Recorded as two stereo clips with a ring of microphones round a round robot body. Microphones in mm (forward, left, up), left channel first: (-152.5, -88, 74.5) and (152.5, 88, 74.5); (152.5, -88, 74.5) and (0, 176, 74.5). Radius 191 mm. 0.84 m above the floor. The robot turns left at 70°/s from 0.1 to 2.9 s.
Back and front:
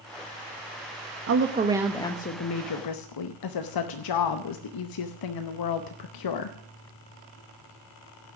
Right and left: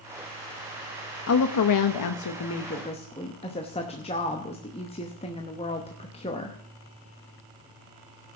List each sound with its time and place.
1.3 s a woman speaking: 15° right, 0.8 m; by 6.6 s 130° right, 0.8 m